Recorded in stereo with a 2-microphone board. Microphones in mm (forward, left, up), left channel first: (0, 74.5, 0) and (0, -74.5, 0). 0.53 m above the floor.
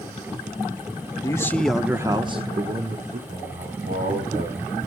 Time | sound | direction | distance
1.2 | a man speaking | 25° left (ahead or behind) | 1.0 m
3.3 | a man speaking | 75° right (ahead or behind) | 5 m